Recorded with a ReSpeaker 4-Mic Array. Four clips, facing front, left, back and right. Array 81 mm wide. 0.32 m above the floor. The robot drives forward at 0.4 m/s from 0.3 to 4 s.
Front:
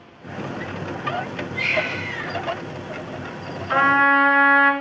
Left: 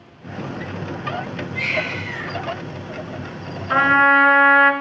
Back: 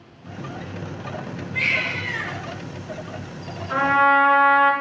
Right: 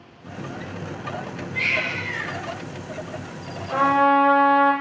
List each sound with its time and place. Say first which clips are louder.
1.5 s a baby crying: left 1 dB, front 1 dB; 160° right, 3.5 m
3.7 s a trumpet: left 3 dB, even; 80° left, 1.5 m; by 4.7 s 85° left, 1.5 m